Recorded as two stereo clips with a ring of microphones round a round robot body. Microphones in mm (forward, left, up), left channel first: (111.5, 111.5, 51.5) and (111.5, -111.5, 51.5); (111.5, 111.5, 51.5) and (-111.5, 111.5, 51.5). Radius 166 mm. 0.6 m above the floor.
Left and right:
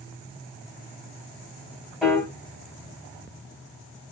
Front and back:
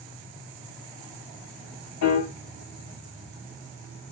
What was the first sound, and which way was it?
A piano, straight ahead.